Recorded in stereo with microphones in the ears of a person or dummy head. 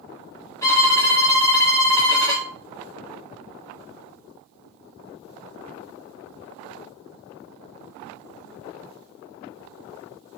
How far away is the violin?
About 1.8 m.